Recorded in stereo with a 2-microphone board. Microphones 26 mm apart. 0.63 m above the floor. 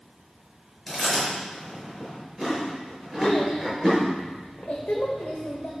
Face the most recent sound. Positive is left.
turn(degrees=80)